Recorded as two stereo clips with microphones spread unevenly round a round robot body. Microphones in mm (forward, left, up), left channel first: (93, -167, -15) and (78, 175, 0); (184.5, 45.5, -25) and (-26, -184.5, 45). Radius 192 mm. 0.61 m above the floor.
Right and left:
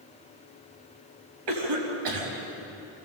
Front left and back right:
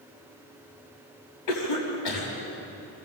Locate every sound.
1.5 s a cough: 90° left, 4.5 m